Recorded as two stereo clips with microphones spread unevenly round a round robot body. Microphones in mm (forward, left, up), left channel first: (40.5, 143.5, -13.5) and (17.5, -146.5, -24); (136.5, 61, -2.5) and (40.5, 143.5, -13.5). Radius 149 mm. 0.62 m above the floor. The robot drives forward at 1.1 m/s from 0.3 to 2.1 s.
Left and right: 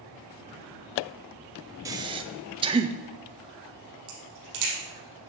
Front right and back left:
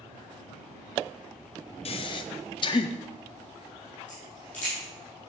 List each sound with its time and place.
1.9 s breathing: 20° right, 0.7 m; by 3.0 s 40° right, 0.5 m
4.1 s a crack: 125° right, 4.5 m